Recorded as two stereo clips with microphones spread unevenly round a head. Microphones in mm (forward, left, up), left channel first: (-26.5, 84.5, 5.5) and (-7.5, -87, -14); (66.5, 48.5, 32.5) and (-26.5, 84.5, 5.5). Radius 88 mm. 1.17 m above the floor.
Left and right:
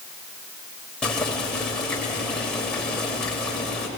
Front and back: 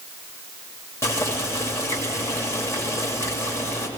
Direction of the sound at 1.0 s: 15° left.